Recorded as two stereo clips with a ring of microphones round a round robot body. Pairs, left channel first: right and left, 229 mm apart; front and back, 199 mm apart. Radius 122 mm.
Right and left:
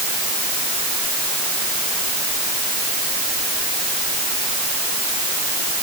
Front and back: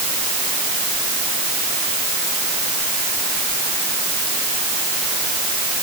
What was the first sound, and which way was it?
Only background noise.